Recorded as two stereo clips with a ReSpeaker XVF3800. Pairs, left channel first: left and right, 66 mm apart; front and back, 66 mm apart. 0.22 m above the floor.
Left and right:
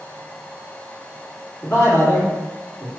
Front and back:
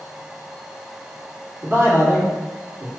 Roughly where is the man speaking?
Behind left.